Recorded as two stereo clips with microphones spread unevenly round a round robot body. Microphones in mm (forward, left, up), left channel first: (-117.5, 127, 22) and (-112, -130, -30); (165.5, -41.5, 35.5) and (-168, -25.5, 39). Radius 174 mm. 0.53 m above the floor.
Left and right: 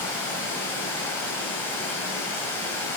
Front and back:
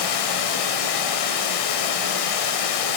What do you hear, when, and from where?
0.0 s running water: 5° left, 1.6 m